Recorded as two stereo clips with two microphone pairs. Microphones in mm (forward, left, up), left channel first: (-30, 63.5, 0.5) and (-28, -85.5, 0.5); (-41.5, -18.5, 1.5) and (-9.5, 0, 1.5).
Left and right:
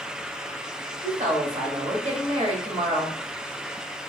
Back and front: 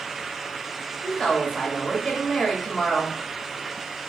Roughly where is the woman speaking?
Right.